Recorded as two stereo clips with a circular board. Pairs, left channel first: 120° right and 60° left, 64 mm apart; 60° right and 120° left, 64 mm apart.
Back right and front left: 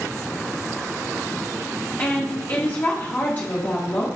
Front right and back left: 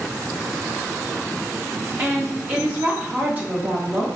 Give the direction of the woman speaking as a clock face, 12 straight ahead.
6 o'clock.